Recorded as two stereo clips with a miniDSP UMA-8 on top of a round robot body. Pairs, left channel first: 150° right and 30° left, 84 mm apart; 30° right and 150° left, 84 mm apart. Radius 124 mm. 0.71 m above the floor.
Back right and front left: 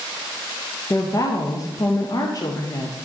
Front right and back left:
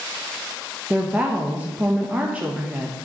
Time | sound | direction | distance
0.9 | a woman speaking | 145° right | 0.8 m